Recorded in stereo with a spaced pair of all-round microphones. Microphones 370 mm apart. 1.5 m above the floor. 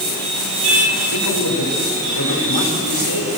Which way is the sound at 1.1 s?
85° left.